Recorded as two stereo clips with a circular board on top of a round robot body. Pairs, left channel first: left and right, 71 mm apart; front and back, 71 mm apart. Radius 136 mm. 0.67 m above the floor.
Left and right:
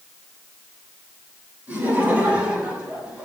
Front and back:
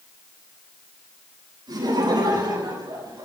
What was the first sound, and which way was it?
Laughter, 160° right.